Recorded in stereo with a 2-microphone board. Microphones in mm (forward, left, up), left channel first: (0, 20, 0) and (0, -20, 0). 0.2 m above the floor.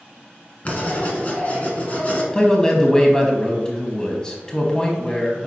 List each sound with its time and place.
0.7 s writing: 35° left (ahead or behind), 1.6 m
2.3 s a man speaking: 20° left (ahead or behind), 1.1 m